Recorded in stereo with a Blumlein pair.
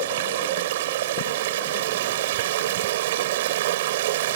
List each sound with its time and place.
0.0 s running water: 55° right